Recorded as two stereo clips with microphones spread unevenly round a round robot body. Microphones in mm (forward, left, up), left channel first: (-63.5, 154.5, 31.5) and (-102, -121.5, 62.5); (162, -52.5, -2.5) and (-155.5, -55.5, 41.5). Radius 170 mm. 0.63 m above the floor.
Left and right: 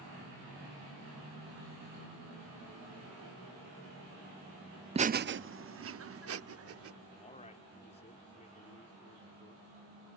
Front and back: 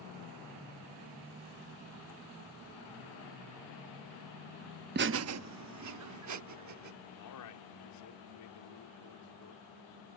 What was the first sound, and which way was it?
Laughter, 155° right.